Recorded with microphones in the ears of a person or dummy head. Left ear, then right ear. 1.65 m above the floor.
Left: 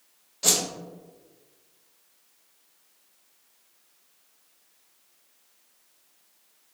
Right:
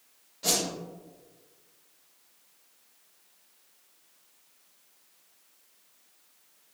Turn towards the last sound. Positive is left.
turn(degrees=30)  # may be behind; listen again after turning